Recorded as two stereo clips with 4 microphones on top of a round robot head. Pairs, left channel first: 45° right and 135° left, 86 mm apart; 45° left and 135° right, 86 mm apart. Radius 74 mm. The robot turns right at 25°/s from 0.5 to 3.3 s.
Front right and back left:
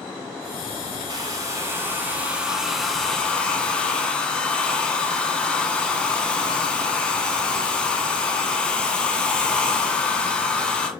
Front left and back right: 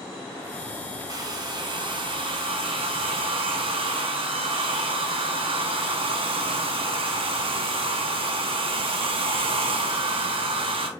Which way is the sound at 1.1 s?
Straight behind.